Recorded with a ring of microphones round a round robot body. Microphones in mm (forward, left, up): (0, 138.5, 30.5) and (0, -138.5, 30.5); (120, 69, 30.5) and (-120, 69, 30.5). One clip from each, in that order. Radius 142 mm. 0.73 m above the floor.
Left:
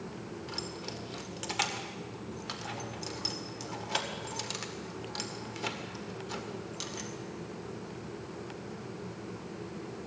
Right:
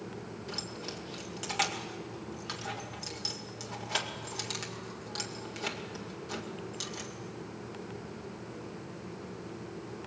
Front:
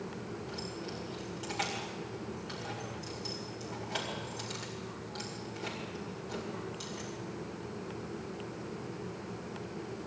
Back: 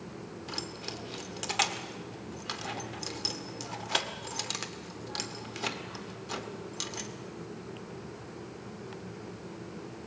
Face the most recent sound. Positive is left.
turn(degrees=-175)